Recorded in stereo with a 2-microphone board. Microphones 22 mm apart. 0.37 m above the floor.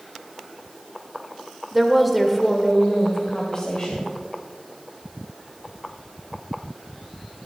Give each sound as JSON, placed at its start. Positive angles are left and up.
{"t": 1.7, "sound": "a woman speaking", "side_deg": -10, "distance_m": 1.1}